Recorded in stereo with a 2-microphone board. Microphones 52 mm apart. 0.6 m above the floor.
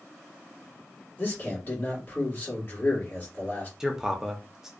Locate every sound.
1.2 s a man speaking: 35° left (ahead or behind), 1.4 m
3.8 s a man speaking: 10° right (ahead or behind), 0.6 m